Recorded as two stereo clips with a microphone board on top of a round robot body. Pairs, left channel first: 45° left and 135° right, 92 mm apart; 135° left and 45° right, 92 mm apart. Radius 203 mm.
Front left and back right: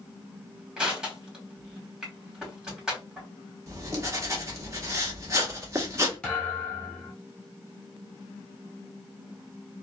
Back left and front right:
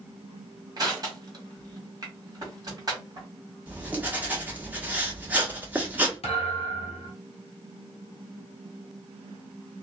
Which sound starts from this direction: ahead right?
Crushing, at 0.8 s.